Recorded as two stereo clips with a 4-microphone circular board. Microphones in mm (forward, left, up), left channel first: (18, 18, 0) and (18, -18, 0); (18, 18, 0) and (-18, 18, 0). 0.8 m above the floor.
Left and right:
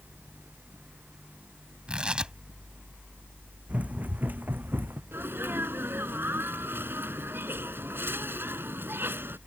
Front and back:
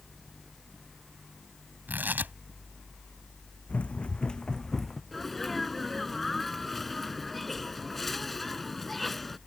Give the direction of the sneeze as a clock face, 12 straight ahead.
3 o'clock.